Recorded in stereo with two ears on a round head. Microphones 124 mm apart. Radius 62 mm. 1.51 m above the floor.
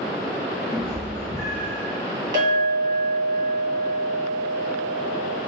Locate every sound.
0.7 s a cat meowing: 20° left (ahead or behind), 0.8 m
2.3 s a clink: 30° right (ahead or behind), 1.4 m